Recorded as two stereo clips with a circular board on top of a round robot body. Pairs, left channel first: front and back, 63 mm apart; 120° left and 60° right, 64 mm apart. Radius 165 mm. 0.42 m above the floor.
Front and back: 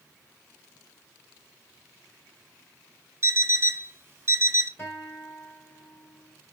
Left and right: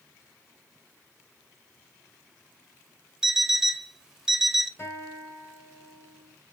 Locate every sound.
3.2 s an alarm clock: 140° right, 0.7 m
4.8 s a guitar: 65° left, 1.8 m